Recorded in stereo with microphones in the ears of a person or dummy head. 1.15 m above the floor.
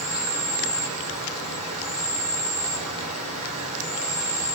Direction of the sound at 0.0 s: 35° right (ahead or behind).